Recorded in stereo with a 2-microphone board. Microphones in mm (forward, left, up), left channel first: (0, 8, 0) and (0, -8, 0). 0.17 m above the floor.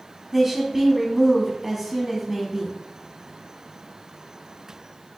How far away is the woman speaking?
About 1.1 m.